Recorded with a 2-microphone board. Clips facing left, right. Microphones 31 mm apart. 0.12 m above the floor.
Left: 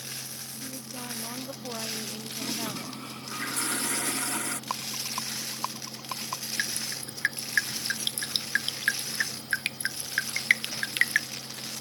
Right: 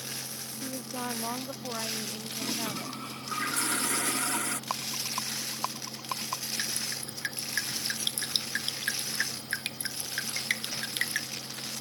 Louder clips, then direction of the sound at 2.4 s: Even; 35° right (ahead or behind).